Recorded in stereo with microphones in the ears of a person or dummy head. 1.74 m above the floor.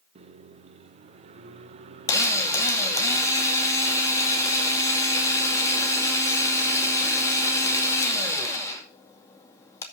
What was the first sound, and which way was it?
A microwave, 35° right (ahead or behind).